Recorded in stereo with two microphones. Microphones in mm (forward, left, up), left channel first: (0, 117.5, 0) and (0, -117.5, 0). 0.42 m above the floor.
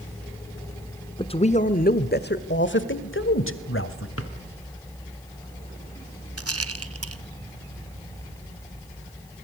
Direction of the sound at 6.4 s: 80° right.